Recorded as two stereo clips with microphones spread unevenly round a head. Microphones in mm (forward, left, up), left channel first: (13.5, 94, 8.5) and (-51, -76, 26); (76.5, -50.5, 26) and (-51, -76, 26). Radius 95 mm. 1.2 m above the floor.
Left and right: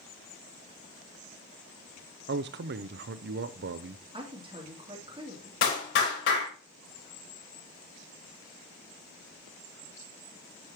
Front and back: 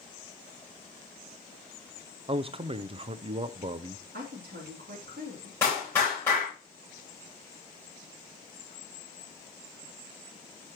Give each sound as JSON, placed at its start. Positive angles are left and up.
{"t": 2.3, "sound": "a man speaking", "azimuth_deg": -130, "distance_m": 0.6}
{"t": 4.1, "sound": "a woman speaking", "azimuth_deg": -175, "distance_m": 2.5}
{"t": 5.6, "sound": "a clap", "azimuth_deg": 90, "distance_m": 5.0}